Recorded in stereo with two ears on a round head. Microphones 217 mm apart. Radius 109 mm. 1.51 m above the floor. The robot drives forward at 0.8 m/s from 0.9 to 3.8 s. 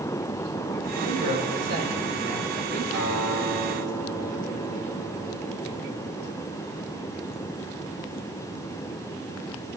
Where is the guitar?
45° right (ahead or behind), 3.5 m; by 6.2 s 55° right (ahead or behind), 3 m.